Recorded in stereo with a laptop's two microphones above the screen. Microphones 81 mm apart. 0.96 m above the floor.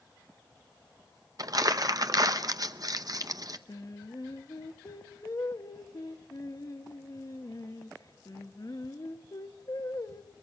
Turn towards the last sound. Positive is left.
turn(degrees=50)  # may be behind; listen again after turning